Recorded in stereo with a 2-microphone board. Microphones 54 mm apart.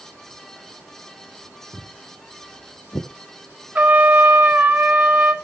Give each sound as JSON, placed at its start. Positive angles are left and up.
{"t": 1.7, "sound": "footsteps", "side_deg": 80, "distance_m": 3.0}
{"t": 3.8, "sound": "a trumpet", "side_deg": -30, "distance_m": 1.4}